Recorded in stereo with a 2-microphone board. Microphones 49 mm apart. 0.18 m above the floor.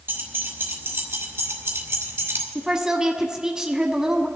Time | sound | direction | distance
0.1 | keys jangling | 55° right (ahead or behind) | 2 m
2.5 | a woman speaking | 15° right (ahead or behind) | 1.0 m